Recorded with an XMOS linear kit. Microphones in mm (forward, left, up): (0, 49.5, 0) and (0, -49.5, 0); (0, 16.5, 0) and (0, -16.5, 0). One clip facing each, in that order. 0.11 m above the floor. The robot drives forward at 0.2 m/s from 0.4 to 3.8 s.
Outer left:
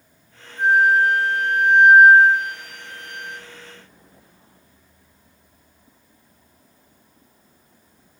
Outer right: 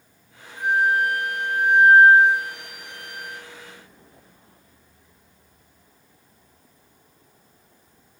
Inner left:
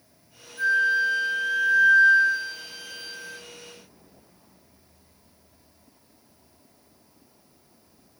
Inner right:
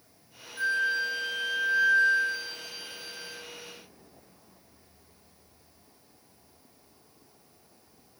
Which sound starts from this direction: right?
A flute, at 0.6 s.